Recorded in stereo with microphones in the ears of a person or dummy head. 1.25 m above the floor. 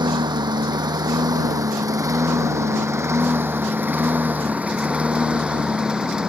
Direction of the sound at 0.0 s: 15° right (ahead or behind).